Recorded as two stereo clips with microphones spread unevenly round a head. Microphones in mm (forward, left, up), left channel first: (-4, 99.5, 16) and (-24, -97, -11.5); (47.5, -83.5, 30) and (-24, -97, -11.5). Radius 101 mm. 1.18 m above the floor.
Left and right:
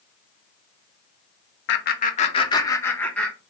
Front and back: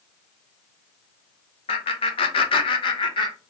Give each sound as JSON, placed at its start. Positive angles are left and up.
{"t": 1.7, "sound": "laughter", "azimuth_deg": 45, "distance_m": 0.8}